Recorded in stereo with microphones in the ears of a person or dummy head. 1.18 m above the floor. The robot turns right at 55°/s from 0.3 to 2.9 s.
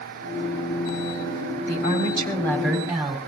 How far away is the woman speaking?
About 4 m.